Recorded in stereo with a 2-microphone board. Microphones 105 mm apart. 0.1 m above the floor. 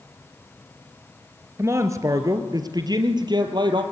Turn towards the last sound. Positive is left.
turn(degrees=-45)  # may be behind; listen again after turning